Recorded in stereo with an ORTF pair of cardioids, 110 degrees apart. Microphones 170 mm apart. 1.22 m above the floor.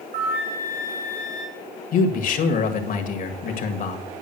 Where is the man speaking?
55° left, 1.9 m.